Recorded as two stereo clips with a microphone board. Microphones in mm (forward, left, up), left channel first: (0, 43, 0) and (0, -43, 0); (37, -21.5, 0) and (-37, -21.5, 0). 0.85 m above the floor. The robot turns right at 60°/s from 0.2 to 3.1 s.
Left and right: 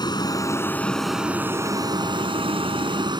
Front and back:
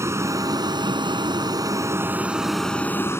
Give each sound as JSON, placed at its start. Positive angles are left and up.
{"t": 0.0, "sound": "a vehicle", "azimuth_deg": 130}